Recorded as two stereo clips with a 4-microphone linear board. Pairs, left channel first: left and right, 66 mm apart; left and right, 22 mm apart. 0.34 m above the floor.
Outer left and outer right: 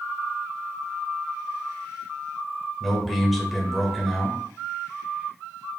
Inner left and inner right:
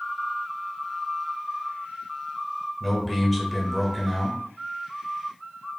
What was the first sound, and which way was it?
A man speaking, centre (ahead or behind).